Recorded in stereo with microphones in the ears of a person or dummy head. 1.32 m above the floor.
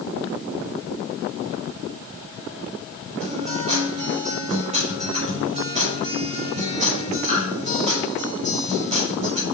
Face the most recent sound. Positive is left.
turn(degrees=-30)  # may be behind; listen again after turning